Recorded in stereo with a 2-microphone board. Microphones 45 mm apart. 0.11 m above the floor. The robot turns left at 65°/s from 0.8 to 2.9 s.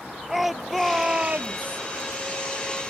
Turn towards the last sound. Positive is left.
turn(degrees=-140)